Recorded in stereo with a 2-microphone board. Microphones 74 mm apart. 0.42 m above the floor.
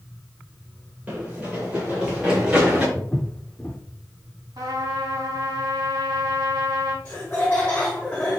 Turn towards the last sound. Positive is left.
turn(degrees=25)  # may be behind; listen again after turning